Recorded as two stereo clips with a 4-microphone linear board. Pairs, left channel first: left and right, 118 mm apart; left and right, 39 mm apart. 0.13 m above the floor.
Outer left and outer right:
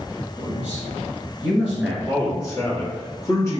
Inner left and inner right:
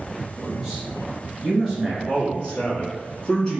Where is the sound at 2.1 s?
25° left (ahead or behind), 1.1 m.